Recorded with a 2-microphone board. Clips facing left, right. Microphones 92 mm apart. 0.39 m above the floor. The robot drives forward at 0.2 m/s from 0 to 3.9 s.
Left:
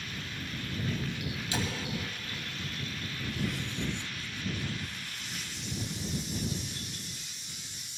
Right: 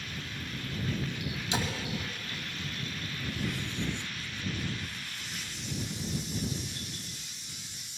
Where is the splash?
20° right (ahead or behind), 2.5 m.